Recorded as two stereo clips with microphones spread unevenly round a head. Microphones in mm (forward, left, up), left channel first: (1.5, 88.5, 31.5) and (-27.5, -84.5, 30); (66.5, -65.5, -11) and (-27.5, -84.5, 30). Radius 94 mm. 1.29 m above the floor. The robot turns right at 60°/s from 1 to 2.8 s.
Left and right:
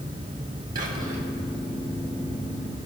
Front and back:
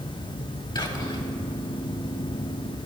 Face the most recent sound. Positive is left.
turn(degrees=80)